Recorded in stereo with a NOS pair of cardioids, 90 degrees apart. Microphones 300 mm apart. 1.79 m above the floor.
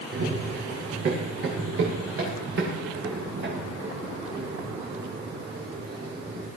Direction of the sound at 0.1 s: 50° right.